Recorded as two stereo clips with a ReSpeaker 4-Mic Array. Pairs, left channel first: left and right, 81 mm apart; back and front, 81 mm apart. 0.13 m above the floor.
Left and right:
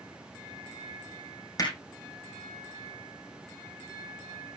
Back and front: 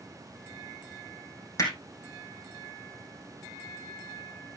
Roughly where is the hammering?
Behind left.